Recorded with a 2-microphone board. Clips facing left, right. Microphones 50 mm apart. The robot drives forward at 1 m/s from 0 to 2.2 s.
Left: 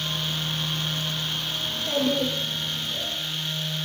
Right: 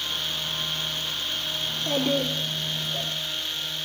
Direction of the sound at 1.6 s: 85° right.